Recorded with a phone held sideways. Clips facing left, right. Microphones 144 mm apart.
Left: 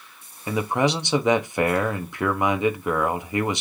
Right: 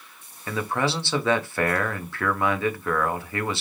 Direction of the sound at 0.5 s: 15° left (ahead or behind).